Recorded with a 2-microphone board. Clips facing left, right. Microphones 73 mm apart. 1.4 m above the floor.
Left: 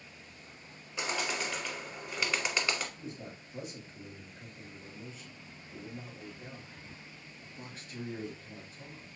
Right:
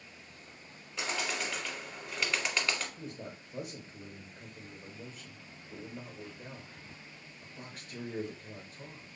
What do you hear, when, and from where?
1.0 s a bird: 5° left (ahead or behind), 1.2 m
3.0 s a man speaking: 65° right (ahead or behind), 1.4 m